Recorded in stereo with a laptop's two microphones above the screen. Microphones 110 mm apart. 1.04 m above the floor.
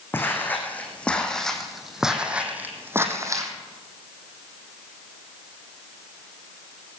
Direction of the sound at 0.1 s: 20° left (ahead or behind).